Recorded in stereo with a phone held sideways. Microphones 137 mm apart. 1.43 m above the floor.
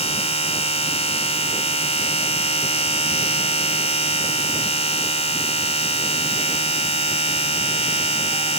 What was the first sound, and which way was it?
A machine running, 50° left (ahead or behind).